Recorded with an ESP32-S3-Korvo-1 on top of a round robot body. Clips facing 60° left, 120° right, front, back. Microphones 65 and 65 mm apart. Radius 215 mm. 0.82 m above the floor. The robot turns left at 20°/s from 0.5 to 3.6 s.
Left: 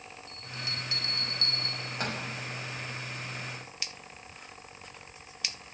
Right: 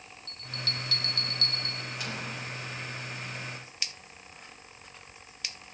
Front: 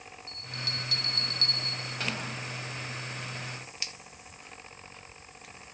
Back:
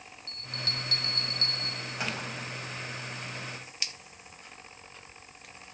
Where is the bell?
140° left, 5.5 m; by 2.2 s 105° left, 5.5 m.